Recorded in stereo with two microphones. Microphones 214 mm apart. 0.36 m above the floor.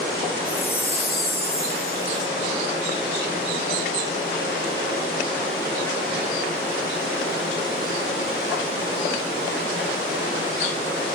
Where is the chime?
45° left (ahead or behind), 1.2 m.